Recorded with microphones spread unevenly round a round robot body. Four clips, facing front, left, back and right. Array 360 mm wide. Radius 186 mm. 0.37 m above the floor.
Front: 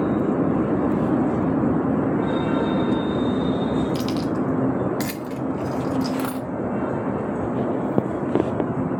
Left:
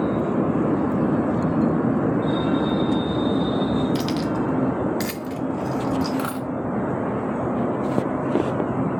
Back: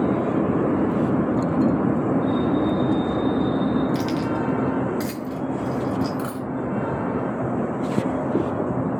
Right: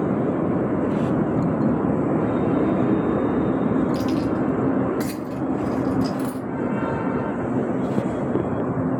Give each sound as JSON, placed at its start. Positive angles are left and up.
{"t": 4.0, "sound": "keys jangling", "azimuth_deg": 65, "distance_m": 1.1}
{"t": 6.2, "sound": "a dropped coin", "azimuth_deg": 30, "distance_m": 1.2}